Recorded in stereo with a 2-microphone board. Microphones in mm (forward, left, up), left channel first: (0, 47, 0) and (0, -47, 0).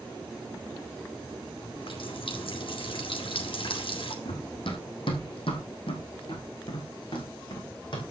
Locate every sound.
1.6 s a running tap: 70° left (ahead or behind), 2 m
4.2 s running footsteps: 70° left (ahead or behind), 2.5 m; by 8.0 s 55° left (ahead or behind), 3.5 m